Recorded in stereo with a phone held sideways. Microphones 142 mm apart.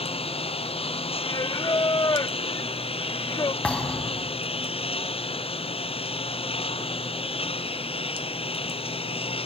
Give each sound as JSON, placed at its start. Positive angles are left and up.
{"t": 0.0, "sound": "a lawn mower", "side_deg": 45}
{"t": 1.2, "sound": "singing", "side_deg": 30}
{"t": 3.6, "sound": "a thud", "side_deg": 10}